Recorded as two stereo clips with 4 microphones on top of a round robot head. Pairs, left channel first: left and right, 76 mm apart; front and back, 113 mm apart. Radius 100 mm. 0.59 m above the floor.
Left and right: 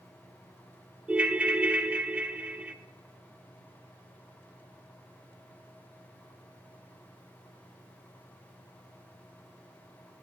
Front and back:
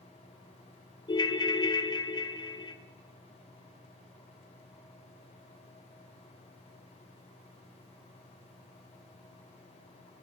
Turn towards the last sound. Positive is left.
turn(degrees=-25)